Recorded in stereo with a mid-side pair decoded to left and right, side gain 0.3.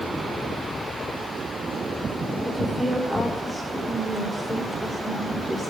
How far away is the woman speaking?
About 4.5 m.